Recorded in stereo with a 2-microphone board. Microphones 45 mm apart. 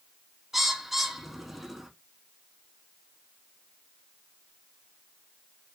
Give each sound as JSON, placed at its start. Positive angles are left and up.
{"t": 0.5, "sound": "a bird", "side_deg": -5, "distance_m": 0.5}